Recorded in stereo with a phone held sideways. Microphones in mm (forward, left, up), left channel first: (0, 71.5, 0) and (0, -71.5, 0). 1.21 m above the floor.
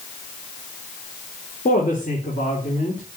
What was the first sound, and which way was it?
A woman speaking, 85° left.